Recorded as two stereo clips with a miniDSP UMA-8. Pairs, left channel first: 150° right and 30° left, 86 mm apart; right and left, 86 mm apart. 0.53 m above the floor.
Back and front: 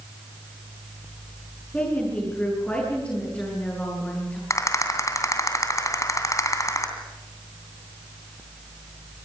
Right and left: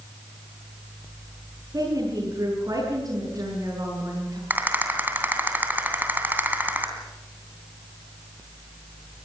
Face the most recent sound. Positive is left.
turn(degrees=160)